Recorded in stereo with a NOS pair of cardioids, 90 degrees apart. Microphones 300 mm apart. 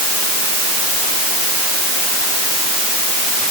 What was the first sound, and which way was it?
Only background noise.